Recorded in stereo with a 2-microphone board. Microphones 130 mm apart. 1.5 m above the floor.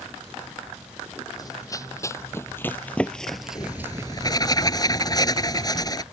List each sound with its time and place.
1.4 s running footsteps: 30° left (ahead or behind); by 4.4 s 35° right (ahead or behind)
3.5 s writing: 30° left (ahead or behind)